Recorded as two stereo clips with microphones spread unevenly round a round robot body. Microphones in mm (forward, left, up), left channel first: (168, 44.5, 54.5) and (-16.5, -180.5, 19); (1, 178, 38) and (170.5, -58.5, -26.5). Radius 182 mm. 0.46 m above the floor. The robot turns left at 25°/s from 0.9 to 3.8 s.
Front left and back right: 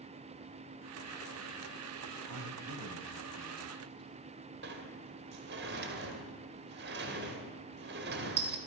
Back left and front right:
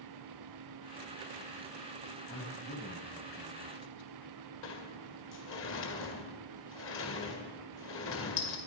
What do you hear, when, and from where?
2.3 s a man speaking: 165° right, 3 m; by 4.4 s 155° left, 3 m
4.6 s a sliding door: 175° right, 2 m